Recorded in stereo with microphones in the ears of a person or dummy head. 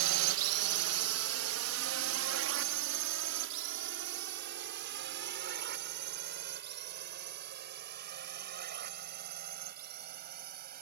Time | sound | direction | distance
0.0 | a drone | 75° right (ahead or behind) | ?